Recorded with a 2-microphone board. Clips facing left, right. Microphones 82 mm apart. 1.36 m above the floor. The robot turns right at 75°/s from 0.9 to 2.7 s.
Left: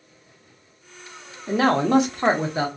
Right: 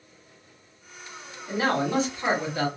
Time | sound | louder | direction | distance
1.5 | a man speaking | left 6 dB | 75° left | 0.8 m